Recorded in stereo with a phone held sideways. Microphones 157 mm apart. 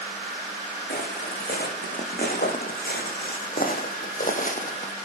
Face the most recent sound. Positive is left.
turn(degrees=50)  # may be behind; listen again after turning